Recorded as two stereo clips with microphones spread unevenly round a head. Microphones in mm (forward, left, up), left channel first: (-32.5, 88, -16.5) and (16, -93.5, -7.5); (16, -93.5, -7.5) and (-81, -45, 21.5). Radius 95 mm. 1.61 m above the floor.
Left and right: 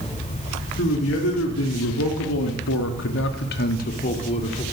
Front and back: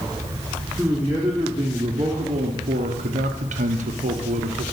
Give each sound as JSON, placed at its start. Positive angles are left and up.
{"t": 0.8, "sound": "a man speaking", "azimuth_deg": 70, "distance_m": 1.5}